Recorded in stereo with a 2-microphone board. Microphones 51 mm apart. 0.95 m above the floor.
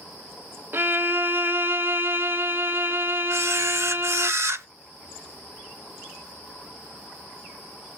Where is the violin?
50° right (ahead or behind), 0.5 m.